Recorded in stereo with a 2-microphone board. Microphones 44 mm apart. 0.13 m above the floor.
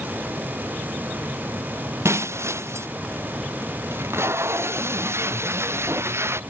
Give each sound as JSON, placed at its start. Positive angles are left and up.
{"t": 2.0, "sound": "breaking glass", "side_deg": -85}
{"t": 3.9, "sound": "tape being pulled", "side_deg": -70}